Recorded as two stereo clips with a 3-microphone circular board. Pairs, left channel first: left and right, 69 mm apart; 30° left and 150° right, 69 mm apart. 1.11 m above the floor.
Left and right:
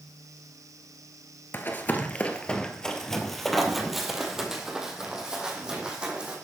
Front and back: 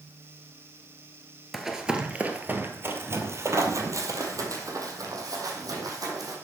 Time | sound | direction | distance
1.5 | running footsteps | 125° left | 1.3 m